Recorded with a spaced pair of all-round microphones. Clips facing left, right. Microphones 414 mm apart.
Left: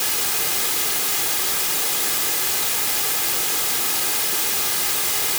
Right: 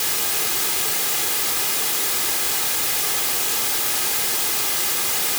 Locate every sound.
Only background noise.